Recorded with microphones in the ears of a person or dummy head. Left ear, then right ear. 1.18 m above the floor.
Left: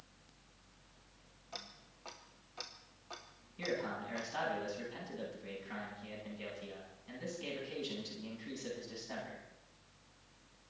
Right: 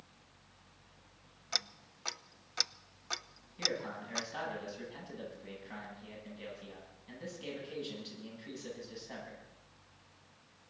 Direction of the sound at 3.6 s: 5° right (ahead or behind).